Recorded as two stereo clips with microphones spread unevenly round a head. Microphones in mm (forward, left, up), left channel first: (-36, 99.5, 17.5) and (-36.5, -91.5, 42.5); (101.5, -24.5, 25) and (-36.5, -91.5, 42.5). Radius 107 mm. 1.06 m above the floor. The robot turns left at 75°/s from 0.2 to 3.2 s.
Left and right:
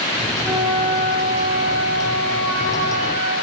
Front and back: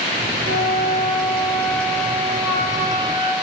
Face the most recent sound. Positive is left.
turn(degrees=-15)